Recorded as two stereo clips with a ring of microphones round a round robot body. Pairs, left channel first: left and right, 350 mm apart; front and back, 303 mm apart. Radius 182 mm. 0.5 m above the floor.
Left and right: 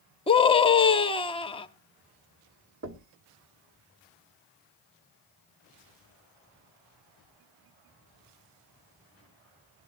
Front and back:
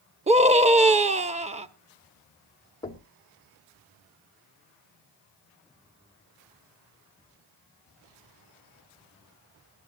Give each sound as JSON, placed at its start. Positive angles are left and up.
{"t": 0.3, "sound": "a scream", "azimuth_deg": 145, "distance_m": 0.8}
{"t": 2.8, "sound": "knocking", "azimuth_deg": -70, "distance_m": 1.1}